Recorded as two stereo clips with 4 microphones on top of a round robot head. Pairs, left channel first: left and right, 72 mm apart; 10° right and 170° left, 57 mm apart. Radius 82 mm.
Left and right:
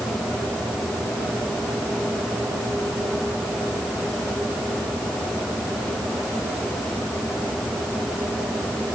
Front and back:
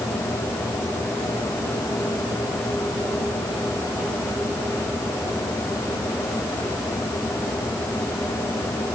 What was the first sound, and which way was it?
Only background noise.